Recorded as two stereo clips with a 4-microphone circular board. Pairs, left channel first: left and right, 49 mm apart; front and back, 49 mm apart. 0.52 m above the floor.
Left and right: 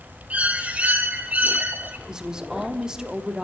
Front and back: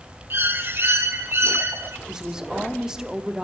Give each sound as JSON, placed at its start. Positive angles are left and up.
{"t": 0.3, "sound": "a bird", "azimuth_deg": -145, "distance_m": 1.0}
{"t": 2.1, "sound": "a woman speaking", "azimuth_deg": -135, "distance_m": 0.9}